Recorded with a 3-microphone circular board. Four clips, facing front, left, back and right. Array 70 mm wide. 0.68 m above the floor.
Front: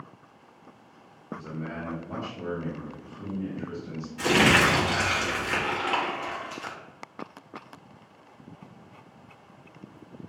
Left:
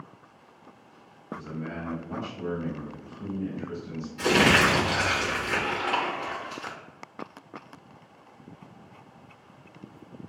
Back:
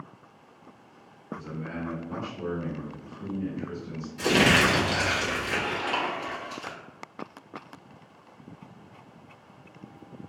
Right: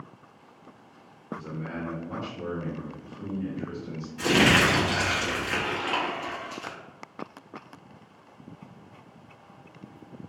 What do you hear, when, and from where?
1.3 s a man speaking: 60° right, 1.6 m
4.2 s crumpling: 30° right, 0.9 m